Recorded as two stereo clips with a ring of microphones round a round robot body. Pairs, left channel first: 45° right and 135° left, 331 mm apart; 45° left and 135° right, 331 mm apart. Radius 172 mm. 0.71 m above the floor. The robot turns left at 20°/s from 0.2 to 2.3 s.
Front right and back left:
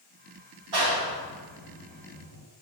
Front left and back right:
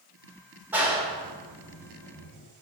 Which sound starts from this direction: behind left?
A clap, at 0.7 s.